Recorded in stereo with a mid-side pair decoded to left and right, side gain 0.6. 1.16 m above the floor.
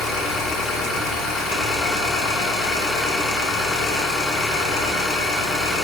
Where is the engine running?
50° left, 1.3 m.